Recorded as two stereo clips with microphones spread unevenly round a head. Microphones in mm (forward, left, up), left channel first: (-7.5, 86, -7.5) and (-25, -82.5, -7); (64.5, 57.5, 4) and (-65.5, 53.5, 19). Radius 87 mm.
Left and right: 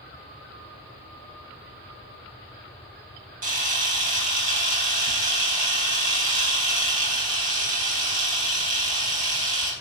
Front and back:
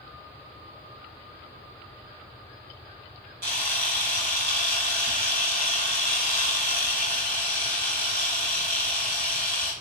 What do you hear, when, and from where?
3.4 s a camera shutter: 140° right, 5 m